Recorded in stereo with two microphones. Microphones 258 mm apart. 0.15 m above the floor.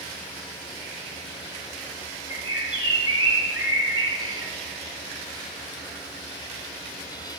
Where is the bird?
60° right (ahead or behind), 3.5 m.